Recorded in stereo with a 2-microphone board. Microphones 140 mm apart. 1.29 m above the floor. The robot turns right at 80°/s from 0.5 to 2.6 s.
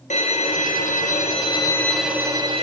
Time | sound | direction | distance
0.1 | a violin | 60° left | 1.3 m